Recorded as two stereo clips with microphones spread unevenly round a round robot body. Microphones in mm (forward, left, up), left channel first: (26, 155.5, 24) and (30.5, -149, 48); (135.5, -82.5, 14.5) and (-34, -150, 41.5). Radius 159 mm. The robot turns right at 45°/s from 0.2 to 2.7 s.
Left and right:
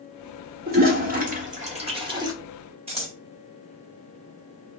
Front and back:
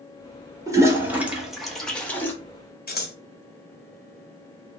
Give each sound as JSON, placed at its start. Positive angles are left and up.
{"t": 0.7, "sound": "a toilet flushing", "azimuth_deg": -90, "distance_m": 1.1}
{"t": 2.9, "sound": "scissors", "azimuth_deg": -15, "distance_m": 1.2}